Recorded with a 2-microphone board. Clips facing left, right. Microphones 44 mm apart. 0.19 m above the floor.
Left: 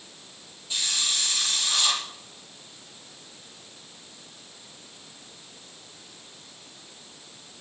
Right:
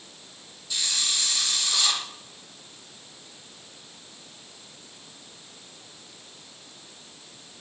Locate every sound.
0.7 s a hiss: 30° left (ahead or behind), 6 m